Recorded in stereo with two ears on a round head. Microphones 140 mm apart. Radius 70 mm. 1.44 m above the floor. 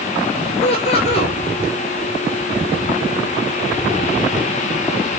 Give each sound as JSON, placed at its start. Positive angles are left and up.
{"t": 0.6, "sound": "laughter", "side_deg": 40, "distance_m": 9.0}